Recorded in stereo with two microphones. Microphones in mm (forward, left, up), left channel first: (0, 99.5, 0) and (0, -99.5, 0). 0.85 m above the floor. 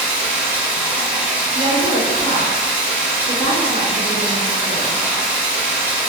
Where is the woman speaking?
45° right (ahead or behind), 0.8 m.